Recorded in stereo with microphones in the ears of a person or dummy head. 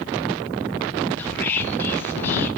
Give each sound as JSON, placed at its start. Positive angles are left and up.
{"t": 1.2, "sound": "whispering", "side_deg": 10, "distance_m": 1.5}